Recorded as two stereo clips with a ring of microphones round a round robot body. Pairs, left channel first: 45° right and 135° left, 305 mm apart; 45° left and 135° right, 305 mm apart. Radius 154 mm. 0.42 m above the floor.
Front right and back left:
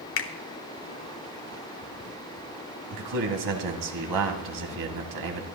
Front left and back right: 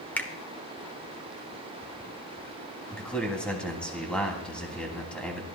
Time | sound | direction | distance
0.2 | a finger snap | 35° right | 1.2 m
2.9 | a man speaking | 130° left | 2.5 m